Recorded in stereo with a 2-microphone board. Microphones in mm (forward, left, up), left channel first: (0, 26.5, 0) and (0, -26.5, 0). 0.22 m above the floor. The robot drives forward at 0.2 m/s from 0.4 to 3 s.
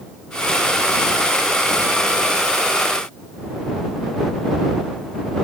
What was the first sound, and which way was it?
Only background noise.